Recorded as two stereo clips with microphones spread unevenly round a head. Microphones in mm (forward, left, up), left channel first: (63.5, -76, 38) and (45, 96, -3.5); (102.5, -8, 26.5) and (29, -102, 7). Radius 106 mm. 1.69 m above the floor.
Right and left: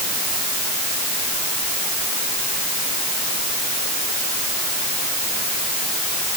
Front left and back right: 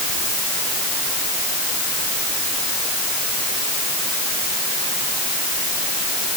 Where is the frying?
No frying in this recording.